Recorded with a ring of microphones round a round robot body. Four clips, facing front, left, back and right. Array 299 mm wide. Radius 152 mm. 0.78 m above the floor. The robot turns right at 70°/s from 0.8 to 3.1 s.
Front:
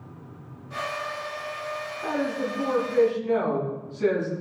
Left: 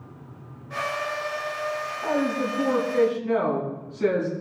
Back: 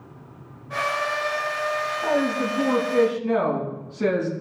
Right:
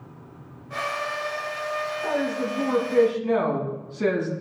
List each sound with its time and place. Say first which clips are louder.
2.0 s a woman speaking: left 3 dB, back 3 dB; 165° left, 7 m; by 4.3 s 120° right, 7 m